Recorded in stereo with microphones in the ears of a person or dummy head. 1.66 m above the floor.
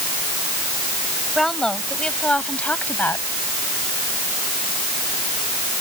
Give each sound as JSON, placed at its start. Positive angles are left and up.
{"t": 1.4, "sound": "a woman speaking", "side_deg": 5}